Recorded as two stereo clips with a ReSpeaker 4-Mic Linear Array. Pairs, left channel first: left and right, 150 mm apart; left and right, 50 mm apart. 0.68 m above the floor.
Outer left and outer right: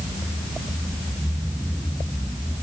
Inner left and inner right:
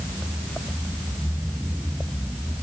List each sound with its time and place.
Only background noise.